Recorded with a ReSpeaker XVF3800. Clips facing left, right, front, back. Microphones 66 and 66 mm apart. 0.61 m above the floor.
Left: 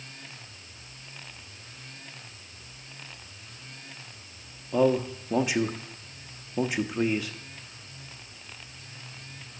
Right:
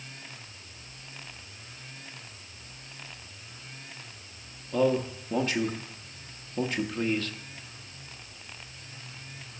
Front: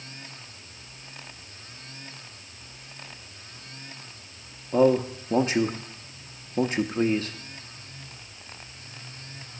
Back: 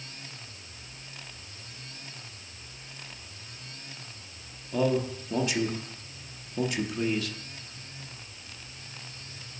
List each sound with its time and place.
4.7 s a man speaking: 20° left, 0.8 m